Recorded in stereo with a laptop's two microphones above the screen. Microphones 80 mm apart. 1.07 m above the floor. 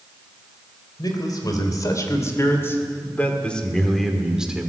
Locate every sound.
1.0 s a man speaking: 55° left (ahead or behind), 3.5 m; by 4.7 s 15° right (ahead or behind), 2.5 m